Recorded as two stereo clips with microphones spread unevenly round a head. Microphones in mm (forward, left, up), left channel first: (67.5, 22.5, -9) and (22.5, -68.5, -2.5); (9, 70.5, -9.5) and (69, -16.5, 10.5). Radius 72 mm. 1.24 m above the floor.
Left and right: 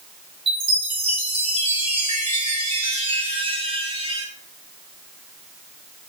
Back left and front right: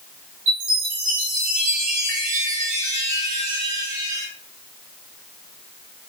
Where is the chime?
95° right, 3.5 m.